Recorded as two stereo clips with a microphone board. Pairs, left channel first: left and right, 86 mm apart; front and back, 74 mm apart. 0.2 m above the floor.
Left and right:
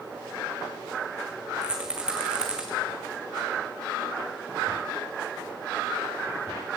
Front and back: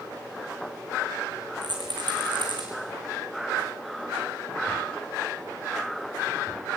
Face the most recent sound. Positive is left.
turn(degrees=-170)